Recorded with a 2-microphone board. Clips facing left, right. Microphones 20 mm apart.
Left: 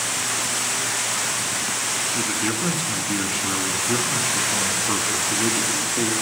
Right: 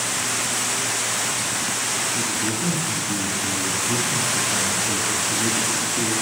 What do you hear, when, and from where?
2.1 s a man speaking: 60° left (ahead or behind), 1.6 m